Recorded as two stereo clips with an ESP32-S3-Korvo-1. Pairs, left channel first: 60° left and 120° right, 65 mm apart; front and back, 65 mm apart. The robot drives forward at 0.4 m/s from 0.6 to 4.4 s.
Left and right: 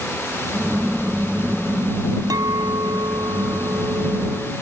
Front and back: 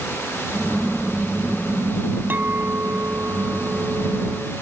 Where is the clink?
120° right; by 4.5 s 130° right.